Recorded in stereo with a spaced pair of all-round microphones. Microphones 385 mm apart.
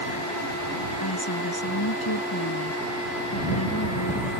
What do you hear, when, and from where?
1.0 s a woman speaking: 65° left (ahead or behind)